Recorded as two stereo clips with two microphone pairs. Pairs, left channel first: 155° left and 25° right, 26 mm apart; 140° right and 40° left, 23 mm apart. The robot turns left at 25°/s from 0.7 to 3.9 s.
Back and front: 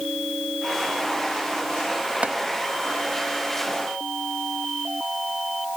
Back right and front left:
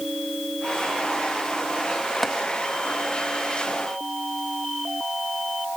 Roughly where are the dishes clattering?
I don't hear dishes clattering.